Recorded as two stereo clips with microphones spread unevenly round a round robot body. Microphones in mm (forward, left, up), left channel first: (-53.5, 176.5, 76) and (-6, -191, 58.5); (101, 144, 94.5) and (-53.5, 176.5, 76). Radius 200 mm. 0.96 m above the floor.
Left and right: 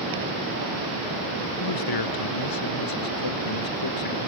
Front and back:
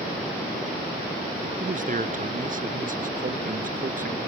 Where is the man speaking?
130° left; by 4.3 s 135° left.